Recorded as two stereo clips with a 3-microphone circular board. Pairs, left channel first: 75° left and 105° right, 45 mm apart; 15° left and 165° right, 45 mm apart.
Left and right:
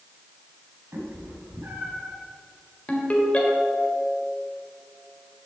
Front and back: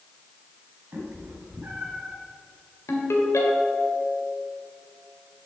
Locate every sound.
0.9 s a cat meowing: 130° right, 2.5 m; by 2.1 s 110° right, 2.5 m
2.9 s a ringtone: 15° left, 1.7 m